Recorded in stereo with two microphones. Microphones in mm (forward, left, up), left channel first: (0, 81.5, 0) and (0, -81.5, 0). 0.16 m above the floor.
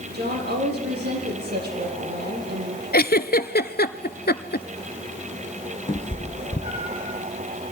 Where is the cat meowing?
35° left (ahead or behind), 1.7 m.